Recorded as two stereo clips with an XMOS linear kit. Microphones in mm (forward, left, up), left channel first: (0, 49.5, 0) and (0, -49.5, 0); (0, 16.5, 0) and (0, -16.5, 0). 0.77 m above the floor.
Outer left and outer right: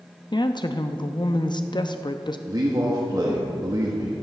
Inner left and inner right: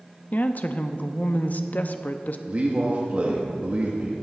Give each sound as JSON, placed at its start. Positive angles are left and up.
{"t": 0.3, "sound": "a woman speaking", "side_deg": 50, "distance_m": 0.6}
{"t": 2.5, "sound": "a man speaking", "side_deg": -40, "distance_m": 1.2}